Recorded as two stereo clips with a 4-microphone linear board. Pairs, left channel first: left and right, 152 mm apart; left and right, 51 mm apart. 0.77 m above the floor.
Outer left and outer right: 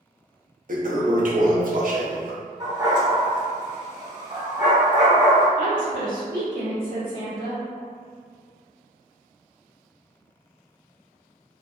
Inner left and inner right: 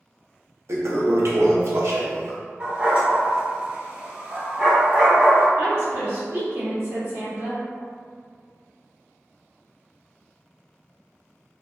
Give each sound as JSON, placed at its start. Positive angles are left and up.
{"t": 0.7, "sound": "a toilet flushing", "side_deg": -60, "distance_m": 0.5}
{"t": 2.6, "sound": "a dog barking", "side_deg": -30, "distance_m": 1.1}
{"t": 5.6, "sound": "a woman speaking", "side_deg": -65, "distance_m": 1.9}